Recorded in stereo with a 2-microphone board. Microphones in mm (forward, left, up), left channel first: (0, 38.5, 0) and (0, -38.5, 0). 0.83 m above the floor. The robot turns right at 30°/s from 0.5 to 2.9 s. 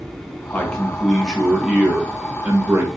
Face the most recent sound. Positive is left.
turn(degrees=-130)